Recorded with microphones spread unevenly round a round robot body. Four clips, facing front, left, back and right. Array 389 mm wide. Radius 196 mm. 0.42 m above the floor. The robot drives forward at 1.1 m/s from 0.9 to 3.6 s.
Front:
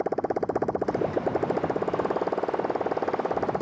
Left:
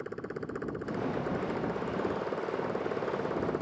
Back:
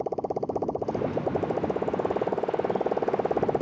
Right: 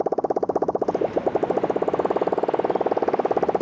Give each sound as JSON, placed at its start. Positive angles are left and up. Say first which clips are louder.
{"t": 0.0, "sound": "a motorcycle", "louder": "right 16 dB, front 2 dB", "azimuth_deg": -65}